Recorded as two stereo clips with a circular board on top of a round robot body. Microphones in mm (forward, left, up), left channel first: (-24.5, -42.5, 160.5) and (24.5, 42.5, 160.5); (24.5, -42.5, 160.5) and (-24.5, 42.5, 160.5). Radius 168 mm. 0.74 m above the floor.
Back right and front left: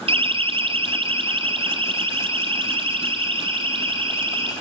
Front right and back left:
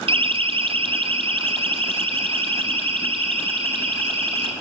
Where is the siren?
90° left, 2 m.